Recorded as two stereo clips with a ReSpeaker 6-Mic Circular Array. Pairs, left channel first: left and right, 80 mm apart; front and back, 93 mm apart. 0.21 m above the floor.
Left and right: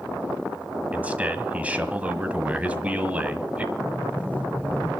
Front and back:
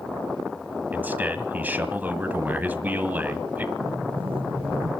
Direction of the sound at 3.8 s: 165° left.